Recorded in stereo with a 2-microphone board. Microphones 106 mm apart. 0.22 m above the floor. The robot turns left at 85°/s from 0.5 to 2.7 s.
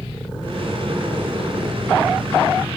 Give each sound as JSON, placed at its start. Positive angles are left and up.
{"t": 0.0, "sound": "an engine running", "azimuth_deg": 50, "distance_m": 8.5}